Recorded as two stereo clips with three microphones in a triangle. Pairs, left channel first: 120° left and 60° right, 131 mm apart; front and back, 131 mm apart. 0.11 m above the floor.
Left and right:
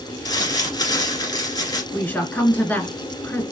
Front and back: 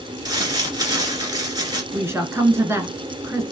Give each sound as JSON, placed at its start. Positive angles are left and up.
{"t": 0.2, "sound": "crumpling", "azimuth_deg": 150, "distance_m": 1.6}
{"t": 1.9, "sound": "a woman speaking", "azimuth_deg": 170, "distance_m": 1.1}